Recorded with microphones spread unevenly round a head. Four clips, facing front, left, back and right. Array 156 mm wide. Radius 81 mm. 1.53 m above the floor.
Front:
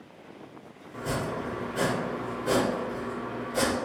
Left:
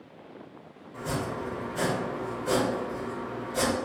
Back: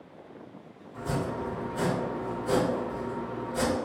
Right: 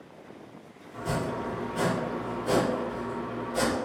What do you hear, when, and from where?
0.9 s chopping: 10° right, 1.4 m